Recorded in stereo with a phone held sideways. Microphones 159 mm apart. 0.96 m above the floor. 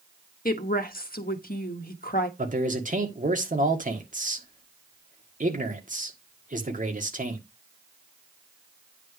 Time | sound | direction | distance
0.5 | a woman speaking | 65° left (ahead or behind) | 1.3 m
2.4 | a man speaking | 55° right (ahead or behind) | 1.7 m